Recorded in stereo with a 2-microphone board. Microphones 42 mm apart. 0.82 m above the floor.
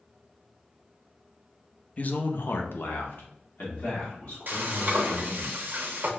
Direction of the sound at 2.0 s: 30° left (ahead or behind).